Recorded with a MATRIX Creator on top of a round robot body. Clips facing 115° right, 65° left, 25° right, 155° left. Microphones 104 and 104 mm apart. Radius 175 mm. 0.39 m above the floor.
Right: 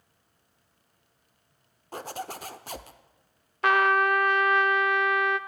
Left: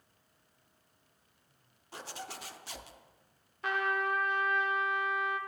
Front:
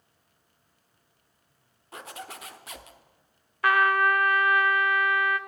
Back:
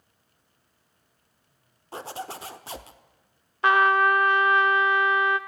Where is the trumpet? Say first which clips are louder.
Right 10 dB, back 3 dB; 135° right, 0.6 m.